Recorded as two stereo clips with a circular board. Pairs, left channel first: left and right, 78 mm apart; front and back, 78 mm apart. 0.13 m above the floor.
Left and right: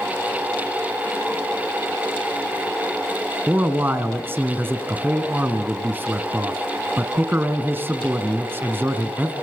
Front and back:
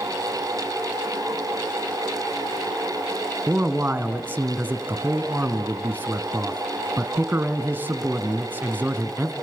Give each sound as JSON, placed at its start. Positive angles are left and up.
{"t": 3.5, "sound": "a man speaking", "azimuth_deg": -135, "distance_m": 1.7}